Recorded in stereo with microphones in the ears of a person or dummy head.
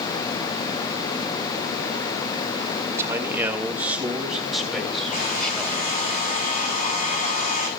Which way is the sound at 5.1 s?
40° left (ahead or behind).